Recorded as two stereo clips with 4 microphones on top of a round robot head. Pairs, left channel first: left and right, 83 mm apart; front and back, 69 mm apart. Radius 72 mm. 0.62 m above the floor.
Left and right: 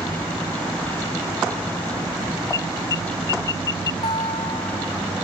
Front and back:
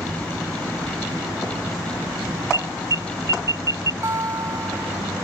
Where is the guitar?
135° left.